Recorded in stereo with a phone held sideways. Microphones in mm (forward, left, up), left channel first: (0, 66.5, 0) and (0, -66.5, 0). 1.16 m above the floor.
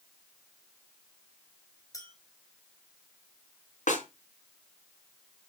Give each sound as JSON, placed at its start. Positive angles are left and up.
{"t": 1.9, "sound": "a clink", "side_deg": 25, "distance_m": 3.5}
{"t": 3.9, "sound": "a snare drum", "side_deg": 70, "distance_m": 4.0}